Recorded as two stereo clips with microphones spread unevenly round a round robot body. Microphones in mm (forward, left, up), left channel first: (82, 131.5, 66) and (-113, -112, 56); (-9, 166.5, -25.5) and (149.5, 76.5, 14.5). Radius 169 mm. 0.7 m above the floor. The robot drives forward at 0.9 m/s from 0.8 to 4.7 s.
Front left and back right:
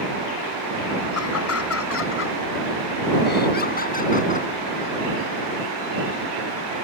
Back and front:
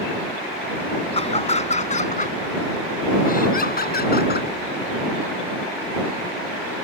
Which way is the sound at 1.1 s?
95° left.